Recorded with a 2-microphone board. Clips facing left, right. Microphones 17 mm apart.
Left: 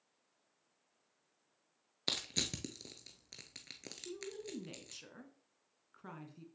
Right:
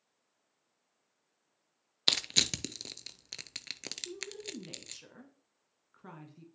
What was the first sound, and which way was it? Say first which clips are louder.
Crushing: right 9 dB; 45° right (ahead or behind).